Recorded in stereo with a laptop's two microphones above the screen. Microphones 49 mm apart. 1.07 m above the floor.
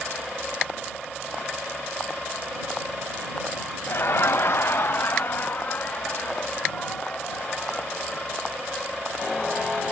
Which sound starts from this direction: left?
Laughter, at 3.9 s.